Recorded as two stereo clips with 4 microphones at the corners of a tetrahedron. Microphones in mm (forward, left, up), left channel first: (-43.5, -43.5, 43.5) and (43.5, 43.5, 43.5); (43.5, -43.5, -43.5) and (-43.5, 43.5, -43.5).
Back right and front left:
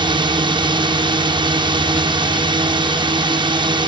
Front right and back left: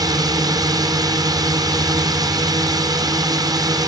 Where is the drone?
85° left.